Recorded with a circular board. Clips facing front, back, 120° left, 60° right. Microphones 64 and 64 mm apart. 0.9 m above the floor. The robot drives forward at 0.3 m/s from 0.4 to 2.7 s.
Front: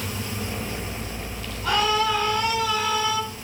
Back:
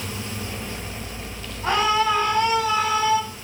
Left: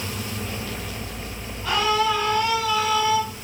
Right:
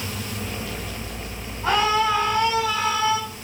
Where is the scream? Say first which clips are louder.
Back 2 dB, right 1 dB; 120° right, 6.5 m.